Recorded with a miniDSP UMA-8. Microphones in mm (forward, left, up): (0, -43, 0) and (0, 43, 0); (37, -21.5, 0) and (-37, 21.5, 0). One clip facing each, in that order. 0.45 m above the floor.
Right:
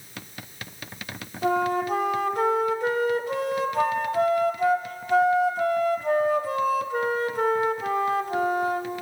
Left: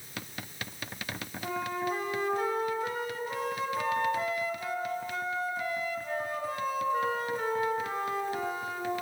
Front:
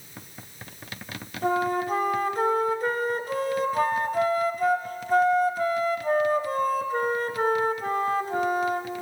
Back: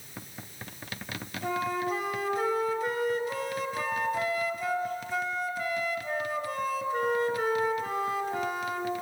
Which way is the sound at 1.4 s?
75° right.